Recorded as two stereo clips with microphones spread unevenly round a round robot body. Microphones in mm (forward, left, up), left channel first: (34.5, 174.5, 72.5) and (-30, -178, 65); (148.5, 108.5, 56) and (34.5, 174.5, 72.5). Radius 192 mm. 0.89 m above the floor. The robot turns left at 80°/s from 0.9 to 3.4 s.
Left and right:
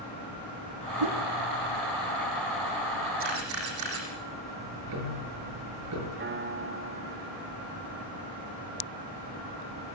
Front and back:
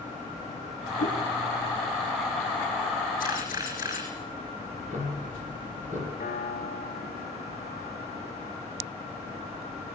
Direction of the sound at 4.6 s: 150° right.